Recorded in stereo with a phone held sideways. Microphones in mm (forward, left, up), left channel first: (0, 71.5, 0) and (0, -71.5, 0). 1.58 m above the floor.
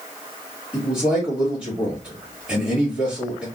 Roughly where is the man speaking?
Centre.